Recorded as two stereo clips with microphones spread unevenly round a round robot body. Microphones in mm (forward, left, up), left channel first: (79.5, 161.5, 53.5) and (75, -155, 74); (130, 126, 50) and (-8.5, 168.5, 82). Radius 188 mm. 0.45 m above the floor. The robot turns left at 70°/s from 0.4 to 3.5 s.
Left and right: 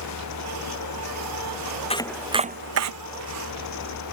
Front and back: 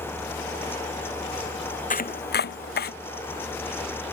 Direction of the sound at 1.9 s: 15° left.